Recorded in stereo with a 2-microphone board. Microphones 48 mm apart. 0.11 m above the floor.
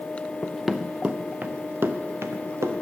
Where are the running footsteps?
15° left (ahead or behind), 0.6 m; by 2.7 s 60° right (ahead or behind), 1.5 m.